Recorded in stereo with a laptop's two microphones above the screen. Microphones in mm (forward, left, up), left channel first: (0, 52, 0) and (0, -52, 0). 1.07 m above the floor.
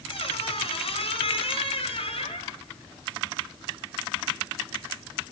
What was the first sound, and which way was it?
A squeak, 70° left (ahead or behind).